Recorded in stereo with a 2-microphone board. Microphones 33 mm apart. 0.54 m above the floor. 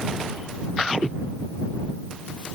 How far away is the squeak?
No squeak in this recording.